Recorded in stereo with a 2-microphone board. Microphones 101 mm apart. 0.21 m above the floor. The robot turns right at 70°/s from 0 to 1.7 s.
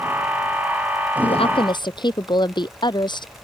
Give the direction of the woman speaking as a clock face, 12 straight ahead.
9 o'clock.